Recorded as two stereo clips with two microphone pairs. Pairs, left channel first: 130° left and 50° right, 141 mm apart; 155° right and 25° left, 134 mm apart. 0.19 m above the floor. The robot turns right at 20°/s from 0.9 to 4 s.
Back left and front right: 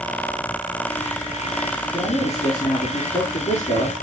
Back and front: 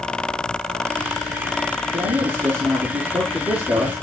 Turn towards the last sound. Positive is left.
turn(degrees=125)